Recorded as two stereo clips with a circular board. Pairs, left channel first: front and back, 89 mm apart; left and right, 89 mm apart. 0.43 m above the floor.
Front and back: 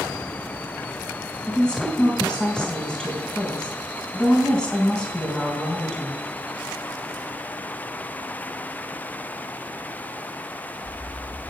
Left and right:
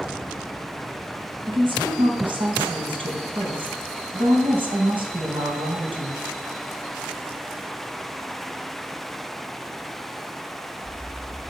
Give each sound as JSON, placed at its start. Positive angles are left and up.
{"t": 1.5, "sound": "a woman speaking", "azimuth_deg": -80, "distance_m": 3.5}